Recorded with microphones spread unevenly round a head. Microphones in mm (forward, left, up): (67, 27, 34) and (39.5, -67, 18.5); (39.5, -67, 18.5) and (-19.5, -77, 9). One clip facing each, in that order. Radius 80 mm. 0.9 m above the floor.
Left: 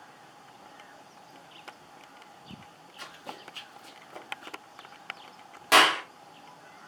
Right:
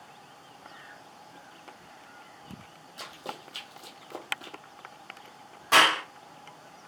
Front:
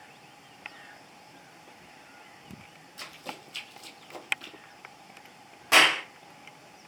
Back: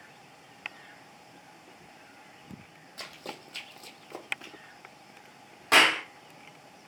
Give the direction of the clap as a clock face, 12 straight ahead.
8 o'clock.